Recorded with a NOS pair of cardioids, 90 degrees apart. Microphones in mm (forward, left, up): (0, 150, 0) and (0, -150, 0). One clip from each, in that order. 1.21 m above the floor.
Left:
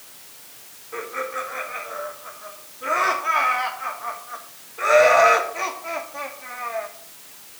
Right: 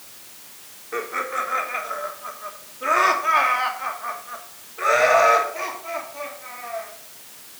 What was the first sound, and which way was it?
Laughter, 40° right.